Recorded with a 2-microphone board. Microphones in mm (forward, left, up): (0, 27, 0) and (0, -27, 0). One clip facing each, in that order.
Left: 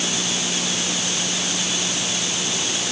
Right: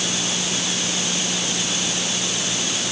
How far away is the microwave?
I don't hear a microwave.